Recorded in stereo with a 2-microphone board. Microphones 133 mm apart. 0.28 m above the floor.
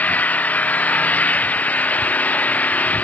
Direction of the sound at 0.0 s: 10° left (ahead or behind).